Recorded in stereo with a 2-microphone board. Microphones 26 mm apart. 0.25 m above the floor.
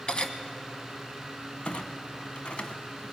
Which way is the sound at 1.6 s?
50° left (ahead or behind).